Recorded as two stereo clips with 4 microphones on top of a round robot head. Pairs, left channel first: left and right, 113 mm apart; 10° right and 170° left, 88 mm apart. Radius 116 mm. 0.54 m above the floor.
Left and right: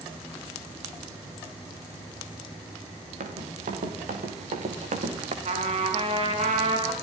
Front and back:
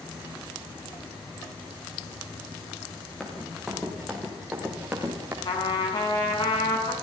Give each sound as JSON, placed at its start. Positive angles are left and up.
{"t": 3.2, "sound": "running footsteps", "azimuth_deg": -95, "distance_m": 6.5}
{"t": 5.5, "sound": "a trumpet", "azimuth_deg": -55, "distance_m": 5.5}